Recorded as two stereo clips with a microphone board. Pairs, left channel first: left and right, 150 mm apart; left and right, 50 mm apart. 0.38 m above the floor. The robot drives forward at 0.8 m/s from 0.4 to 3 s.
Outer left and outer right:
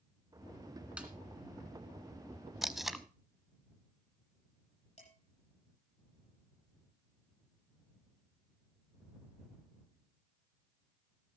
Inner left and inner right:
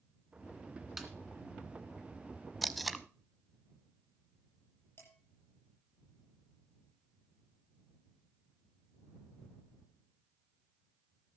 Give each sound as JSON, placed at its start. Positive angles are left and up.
{"t": 1.0, "sound": "a snare drum", "side_deg": -5, "distance_m": 2.0}
{"t": 2.6, "sound": "tape being pulled", "side_deg": 0, "distance_m": 0.5}
{"t": 5.0, "sound": "dishes clattering", "side_deg": 50, "distance_m": 10.0}